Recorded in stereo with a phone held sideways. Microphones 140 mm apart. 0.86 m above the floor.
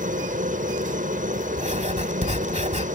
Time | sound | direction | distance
0.0 | a helicopter | 70° right (ahead or behind) | ?
1.6 | writing | 55° right (ahead or behind) | ?